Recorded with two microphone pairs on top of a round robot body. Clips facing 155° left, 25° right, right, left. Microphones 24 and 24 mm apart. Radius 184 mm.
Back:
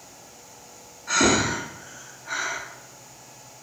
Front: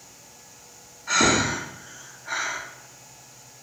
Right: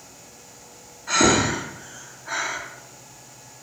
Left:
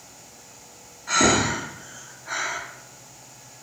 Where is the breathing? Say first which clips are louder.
Even, right 1 dB; 15° right, 1.2 m.